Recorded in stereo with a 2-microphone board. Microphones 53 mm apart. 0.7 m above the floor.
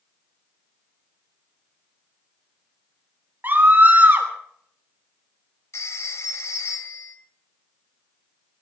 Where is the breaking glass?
No breaking glass in this recording.